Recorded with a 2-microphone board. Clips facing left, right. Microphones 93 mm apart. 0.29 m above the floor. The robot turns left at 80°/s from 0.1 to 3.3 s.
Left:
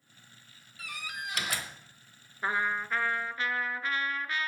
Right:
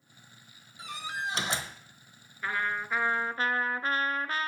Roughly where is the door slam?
Right.